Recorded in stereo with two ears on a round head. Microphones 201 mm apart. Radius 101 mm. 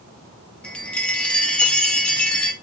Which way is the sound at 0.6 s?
5° left (ahead or behind).